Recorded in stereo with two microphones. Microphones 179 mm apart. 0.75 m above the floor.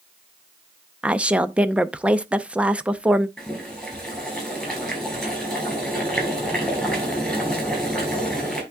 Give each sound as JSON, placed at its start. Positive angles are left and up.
{"t": 1.0, "sound": "a woman speaking", "side_deg": -5, "distance_m": 0.5}
{"t": 3.4, "sound": "boiling", "side_deg": 0, "distance_m": 5.0}